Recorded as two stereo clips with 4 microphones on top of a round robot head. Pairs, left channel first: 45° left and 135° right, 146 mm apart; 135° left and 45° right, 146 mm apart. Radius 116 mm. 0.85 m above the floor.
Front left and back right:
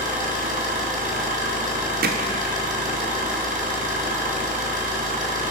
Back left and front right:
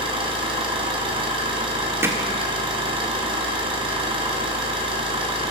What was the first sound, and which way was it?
An engine running, 100° right.